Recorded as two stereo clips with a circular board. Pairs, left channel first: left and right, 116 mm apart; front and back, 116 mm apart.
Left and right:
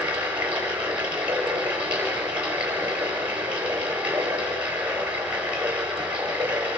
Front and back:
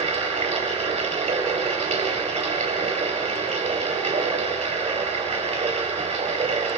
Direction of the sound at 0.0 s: 170° right.